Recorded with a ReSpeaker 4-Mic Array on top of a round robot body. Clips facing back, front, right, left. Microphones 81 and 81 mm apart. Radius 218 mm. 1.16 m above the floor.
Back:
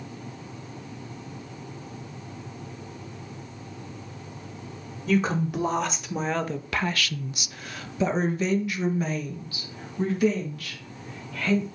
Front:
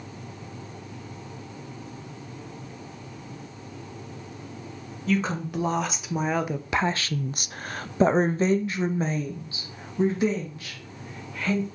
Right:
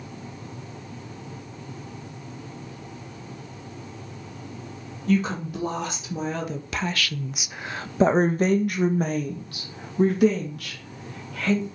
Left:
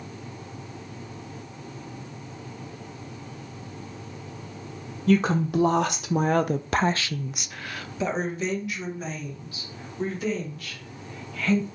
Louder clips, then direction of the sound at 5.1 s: Back 2 dB, left 3 dB; 95° left.